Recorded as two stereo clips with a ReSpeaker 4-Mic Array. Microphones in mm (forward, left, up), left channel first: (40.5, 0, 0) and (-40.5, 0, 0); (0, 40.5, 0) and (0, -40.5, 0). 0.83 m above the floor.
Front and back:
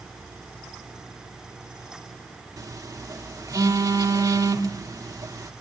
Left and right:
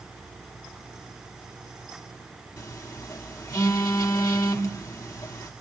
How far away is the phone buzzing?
About 2 m.